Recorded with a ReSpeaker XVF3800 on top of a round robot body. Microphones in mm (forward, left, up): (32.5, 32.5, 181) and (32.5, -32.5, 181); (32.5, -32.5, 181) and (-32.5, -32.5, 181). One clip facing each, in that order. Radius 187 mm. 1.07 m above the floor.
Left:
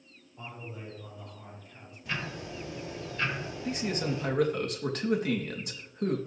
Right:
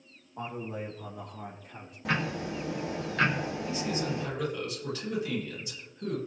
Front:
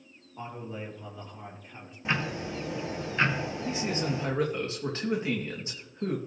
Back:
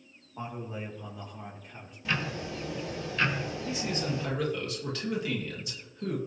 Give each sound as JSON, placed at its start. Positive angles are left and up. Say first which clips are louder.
{"t": 0.4, "sound": "a man speaking", "louder": "right 7 dB, back 1 dB", "azimuth_deg": -110, "distance_m": 3.0}
{"t": 2.0, "sound": "ticking", "louder": "right 6 dB, front 2 dB", "azimuth_deg": -65, "distance_m": 1.9}
{"t": 3.6, "sound": "a man speaking", "louder": "left 4 dB, front 2 dB", "azimuth_deg": 55, "distance_m": 2.5}